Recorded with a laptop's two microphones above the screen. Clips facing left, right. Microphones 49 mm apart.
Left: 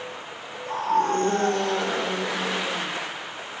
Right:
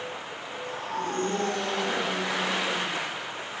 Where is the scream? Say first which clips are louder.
Left 10 dB; 80° left, 3.5 m.